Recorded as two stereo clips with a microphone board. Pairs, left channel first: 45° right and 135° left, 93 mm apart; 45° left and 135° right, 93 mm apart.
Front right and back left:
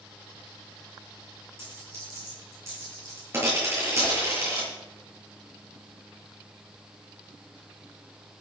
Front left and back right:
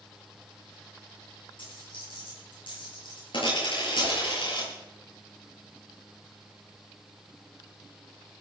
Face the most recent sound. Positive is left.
turn(degrees=-115)